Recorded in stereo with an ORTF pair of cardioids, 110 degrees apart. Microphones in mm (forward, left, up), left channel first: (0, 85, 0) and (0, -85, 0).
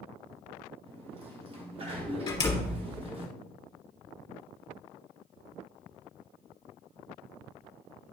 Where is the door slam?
25° left, 2.5 m.